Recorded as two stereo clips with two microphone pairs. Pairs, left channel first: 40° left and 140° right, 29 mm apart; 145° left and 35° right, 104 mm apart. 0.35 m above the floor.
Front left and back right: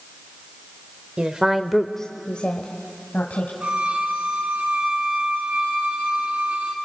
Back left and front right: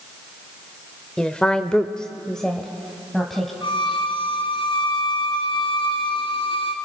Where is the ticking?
No ticking in this recording.